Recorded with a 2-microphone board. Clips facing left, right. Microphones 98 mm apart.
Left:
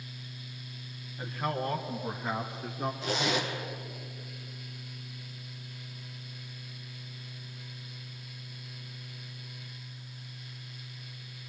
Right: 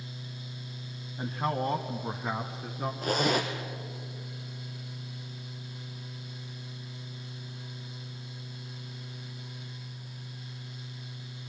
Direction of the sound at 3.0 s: 45° right (ahead or behind).